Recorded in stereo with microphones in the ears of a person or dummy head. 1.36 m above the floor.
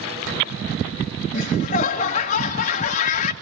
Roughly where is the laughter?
Left.